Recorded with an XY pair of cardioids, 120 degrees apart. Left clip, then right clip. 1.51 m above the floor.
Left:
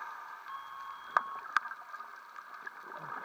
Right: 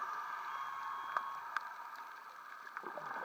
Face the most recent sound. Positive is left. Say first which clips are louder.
# right 2 dB
turn(degrees=-10)